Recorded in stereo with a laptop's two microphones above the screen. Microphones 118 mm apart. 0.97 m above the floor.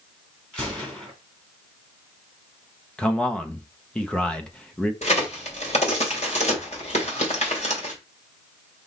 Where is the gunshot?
10° left (ahead or behind), 3 m.